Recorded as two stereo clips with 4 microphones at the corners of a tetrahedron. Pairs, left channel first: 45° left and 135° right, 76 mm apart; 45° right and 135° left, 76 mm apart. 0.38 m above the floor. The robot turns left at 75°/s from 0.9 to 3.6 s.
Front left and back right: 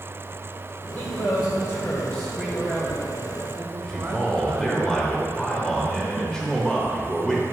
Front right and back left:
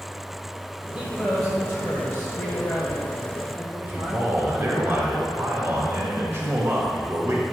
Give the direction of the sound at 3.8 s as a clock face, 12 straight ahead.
8 o'clock.